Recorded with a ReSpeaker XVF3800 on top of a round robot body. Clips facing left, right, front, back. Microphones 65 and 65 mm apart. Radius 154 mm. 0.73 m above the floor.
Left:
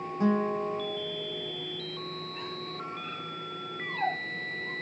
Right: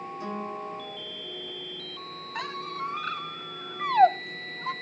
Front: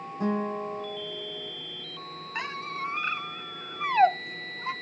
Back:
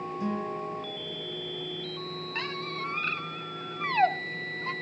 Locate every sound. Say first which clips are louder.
0.2 s a guitar: left 9 dB, front 5 dB; 45° left, 6.5 m
2.4 s a squeak: right 5 dB, front 2 dB; 75° right, 0.8 m